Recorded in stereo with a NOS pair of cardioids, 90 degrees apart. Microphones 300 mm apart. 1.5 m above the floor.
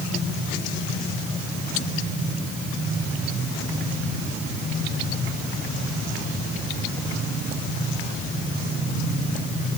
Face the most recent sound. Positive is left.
No sound to turn to.